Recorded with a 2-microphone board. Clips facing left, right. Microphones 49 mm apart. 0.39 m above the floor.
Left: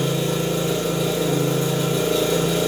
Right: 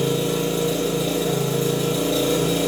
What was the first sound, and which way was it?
An engine running, 55° left (ahead or behind).